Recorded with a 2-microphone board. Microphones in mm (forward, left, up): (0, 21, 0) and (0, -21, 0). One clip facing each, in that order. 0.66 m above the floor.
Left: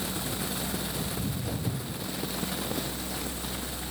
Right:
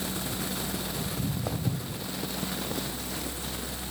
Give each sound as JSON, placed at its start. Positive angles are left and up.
{"t": 1.1, "sound": "footsteps", "side_deg": -50, "distance_m": 2.0}